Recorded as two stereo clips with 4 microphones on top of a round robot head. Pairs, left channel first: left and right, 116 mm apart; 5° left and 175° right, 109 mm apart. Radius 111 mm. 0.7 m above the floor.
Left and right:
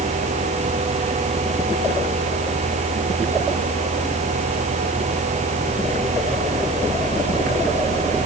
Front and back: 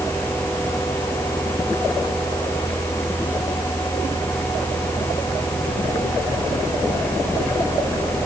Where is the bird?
No bird in this recording.